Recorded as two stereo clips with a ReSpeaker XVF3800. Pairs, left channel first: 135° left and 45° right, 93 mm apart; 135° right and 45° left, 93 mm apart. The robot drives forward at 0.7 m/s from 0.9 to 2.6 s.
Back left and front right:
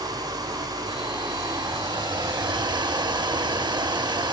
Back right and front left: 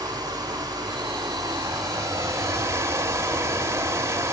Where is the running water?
5° right, 1.8 m; by 4.3 s 10° right, 0.6 m.